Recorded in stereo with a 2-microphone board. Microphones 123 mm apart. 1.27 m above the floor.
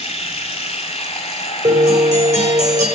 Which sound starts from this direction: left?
Running water, at 0.0 s.